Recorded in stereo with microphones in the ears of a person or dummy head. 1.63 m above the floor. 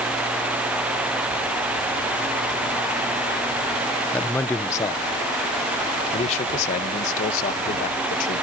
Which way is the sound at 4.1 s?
5° left (ahead or behind).